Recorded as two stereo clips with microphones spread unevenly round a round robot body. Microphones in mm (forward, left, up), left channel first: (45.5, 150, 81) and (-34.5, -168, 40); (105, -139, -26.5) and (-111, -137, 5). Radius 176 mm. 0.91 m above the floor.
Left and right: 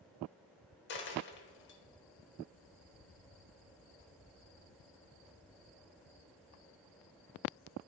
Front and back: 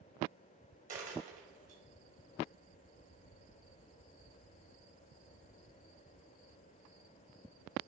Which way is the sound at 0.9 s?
125° left.